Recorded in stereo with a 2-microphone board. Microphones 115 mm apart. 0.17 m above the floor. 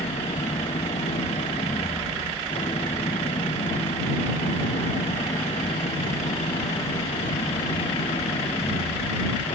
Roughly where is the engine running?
Left.